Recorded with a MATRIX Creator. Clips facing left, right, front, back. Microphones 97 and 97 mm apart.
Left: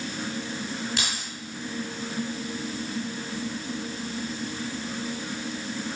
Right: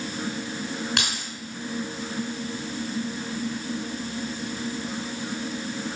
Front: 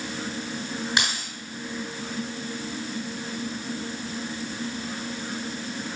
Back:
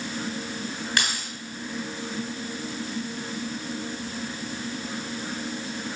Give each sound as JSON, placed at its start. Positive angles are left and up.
{"t": 1.0, "sound": "keys jangling", "azimuth_deg": -70, "distance_m": 3.5}